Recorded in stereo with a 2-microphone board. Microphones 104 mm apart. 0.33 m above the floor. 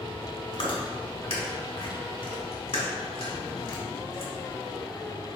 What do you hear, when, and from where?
0.5 s chewing: 65° left (ahead or behind), 1.2 m